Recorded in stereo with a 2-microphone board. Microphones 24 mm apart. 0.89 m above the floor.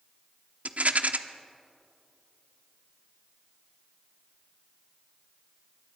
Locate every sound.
0.7 s a rattle: 65° right (ahead or behind), 1.0 m